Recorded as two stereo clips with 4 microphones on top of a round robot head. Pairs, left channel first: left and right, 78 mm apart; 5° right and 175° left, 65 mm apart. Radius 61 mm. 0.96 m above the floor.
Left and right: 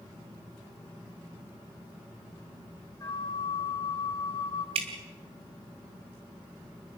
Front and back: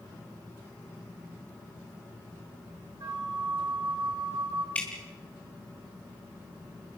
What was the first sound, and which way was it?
A flute, 145° left.